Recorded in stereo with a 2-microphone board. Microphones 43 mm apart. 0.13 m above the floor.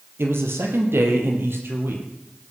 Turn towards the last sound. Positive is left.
turn(degrees=-60)  # may be behind; listen again after turning